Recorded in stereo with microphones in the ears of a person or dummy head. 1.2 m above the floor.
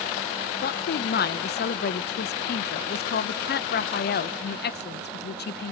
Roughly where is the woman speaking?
Left.